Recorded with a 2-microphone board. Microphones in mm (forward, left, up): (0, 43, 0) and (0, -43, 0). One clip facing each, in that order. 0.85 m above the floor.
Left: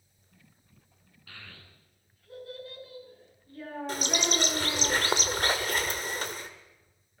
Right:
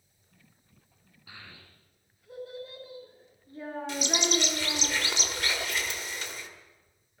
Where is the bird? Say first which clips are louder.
Right 1 dB; 45° left (ahead or behind), 2 m.